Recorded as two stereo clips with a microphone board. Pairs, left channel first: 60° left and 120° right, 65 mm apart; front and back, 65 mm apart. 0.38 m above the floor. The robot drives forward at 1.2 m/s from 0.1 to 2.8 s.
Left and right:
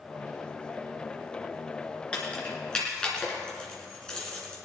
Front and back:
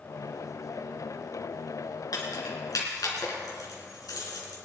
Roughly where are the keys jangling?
Ahead.